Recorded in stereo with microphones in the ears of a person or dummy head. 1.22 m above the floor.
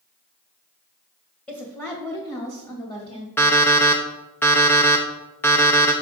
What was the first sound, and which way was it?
A woman speaking, 10° left (ahead or behind).